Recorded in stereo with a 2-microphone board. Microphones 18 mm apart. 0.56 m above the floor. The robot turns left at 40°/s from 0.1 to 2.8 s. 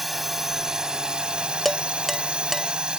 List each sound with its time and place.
0.0 s a drone: 10° right; by 3.0 s 120° right
1.6 s dishes clattering: 15° left (ahead or behind); by 2.7 s 20° right (ahead or behind)